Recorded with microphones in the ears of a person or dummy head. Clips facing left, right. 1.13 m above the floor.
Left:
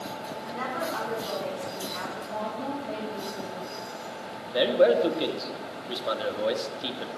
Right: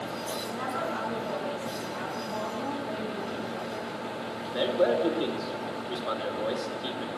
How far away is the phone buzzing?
I don't hear a phone buzzing.